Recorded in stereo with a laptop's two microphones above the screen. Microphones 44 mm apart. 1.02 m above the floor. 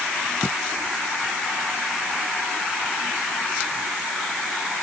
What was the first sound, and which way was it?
Only background noise.